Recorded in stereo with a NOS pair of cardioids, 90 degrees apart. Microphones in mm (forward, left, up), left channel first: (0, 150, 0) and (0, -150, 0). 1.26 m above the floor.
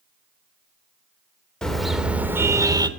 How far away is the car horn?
About 2.5 m.